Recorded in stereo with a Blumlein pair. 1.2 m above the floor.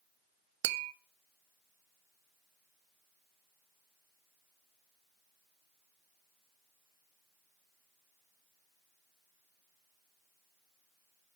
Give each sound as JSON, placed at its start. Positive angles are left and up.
{"t": 0.6, "sound": "tapping", "azimuth_deg": -50, "distance_m": 0.7}